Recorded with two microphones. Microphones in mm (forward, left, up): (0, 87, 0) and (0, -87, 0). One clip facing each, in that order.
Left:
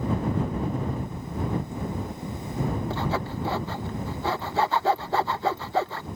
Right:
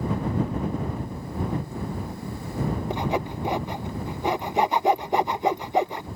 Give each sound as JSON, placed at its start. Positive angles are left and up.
{"t": 2.9, "sound": "sawing", "side_deg": -15}